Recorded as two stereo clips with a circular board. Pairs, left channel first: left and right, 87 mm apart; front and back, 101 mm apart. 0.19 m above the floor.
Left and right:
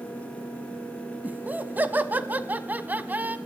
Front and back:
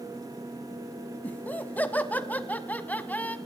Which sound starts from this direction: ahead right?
Laughter, at 1.2 s.